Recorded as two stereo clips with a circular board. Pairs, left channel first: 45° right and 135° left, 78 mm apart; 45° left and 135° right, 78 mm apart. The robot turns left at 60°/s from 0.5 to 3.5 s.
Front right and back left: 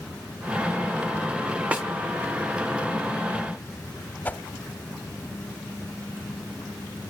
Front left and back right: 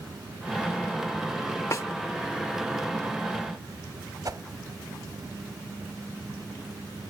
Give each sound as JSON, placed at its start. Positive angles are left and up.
{"t": 1.7, "sound": "a snare drum", "azimuth_deg": 70, "distance_m": 0.7}
{"t": 4.2, "sound": "a whoosh", "azimuth_deg": -110, "distance_m": 0.8}